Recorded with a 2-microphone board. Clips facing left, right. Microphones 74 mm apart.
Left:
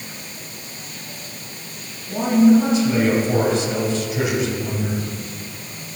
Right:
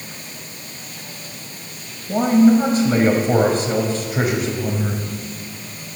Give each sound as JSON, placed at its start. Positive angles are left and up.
{"t": 2.1, "sound": "a man speaking", "side_deg": -45, "distance_m": 1.7}